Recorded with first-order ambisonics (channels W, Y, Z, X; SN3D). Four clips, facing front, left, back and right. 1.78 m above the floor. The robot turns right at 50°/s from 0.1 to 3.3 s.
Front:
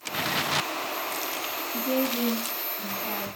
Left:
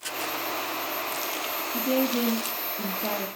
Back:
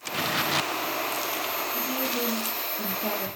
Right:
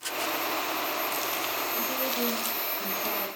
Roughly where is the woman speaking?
Ahead left.